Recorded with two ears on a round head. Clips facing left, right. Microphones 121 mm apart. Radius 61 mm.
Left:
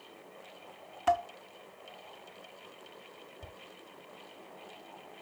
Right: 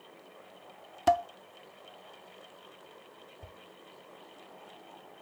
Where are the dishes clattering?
40° right (ahead or behind), 0.7 m.